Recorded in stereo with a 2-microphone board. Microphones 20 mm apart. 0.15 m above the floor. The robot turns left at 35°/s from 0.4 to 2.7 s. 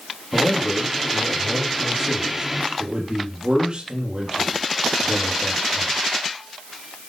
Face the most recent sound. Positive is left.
turn(degrees=-55)